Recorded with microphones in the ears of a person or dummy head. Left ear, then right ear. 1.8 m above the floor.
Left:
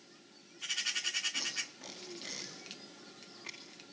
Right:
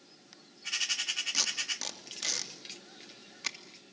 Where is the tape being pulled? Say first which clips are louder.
Right 6 dB; 65° right (ahead or behind), 2.5 m.